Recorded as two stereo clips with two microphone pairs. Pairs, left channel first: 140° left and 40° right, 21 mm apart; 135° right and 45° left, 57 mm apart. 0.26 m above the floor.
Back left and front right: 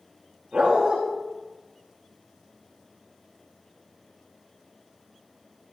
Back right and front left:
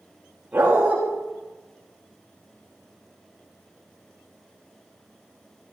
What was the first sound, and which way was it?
A dog barking, 15° right.